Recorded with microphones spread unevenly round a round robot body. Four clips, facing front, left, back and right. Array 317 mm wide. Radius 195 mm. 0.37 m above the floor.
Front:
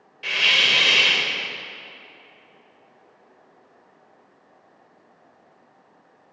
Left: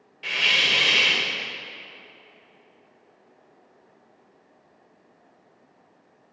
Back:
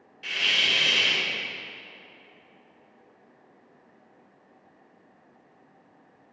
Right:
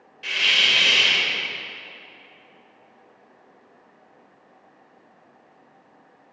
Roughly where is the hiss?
Ahead.